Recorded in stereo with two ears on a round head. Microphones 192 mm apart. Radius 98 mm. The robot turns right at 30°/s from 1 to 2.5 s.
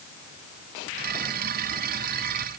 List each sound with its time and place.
Only background noise.